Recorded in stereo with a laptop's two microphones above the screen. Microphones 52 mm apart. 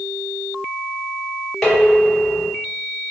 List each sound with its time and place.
1.6 s dishes clattering: 5° left (ahead or behind), 3 m